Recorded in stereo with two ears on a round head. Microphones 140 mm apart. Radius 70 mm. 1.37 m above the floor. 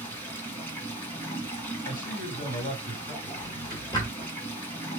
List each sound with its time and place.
0.0 s running water: 15° left (ahead or behind), 1.9 m
1.9 s a man speaking: 65° left (ahead or behind), 3 m
3.2 s a drawer: 25° left (ahead or behind), 2 m